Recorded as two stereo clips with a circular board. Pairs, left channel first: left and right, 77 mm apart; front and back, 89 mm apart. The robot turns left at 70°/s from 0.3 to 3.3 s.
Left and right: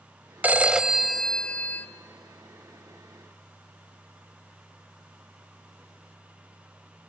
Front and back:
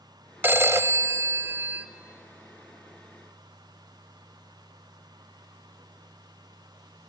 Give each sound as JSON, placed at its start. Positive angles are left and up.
{"t": 0.4, "sound": "a phone ringing", "azimuth_deg": -135, "distance_m": 0.6}